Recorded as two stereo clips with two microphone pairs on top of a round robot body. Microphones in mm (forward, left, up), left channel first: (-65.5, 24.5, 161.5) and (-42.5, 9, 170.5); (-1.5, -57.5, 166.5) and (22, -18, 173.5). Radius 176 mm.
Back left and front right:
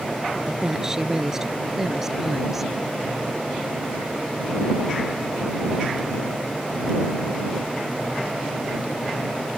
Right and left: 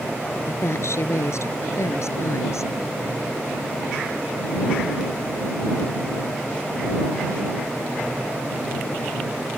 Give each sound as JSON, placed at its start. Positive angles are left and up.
{"t": 0.5, "sound": "a woman speaking", "azimuth_deg": -100}